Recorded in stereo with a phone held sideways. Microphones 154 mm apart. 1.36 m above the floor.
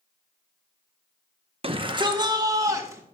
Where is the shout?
40° right (ahead or behind), 1.3 m; by 3.0 s 20° right (ahead or behind), 2 m.